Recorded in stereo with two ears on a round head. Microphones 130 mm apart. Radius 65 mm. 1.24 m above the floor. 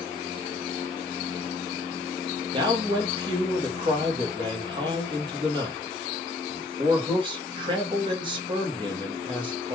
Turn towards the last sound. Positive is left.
turn(degrees=-35)  # may be behind; listen again after turning